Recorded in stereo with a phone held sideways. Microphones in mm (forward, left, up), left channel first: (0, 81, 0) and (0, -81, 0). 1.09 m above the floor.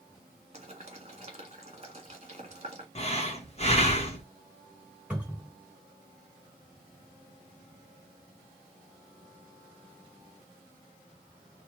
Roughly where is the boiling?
Right.